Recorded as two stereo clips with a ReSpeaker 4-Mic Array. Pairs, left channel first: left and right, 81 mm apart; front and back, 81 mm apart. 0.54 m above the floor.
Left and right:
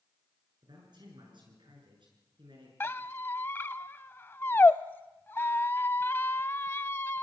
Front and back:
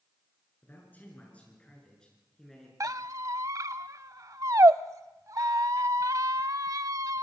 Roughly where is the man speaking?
Ahead right.